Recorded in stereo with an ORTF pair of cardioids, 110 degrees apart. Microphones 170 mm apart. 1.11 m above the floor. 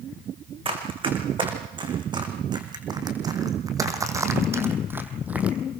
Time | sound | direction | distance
0.7 | running footsteps | 30° right | 6 m